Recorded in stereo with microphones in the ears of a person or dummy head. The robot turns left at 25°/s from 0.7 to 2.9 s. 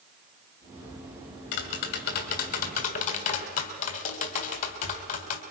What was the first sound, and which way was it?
Tapping, 80° left.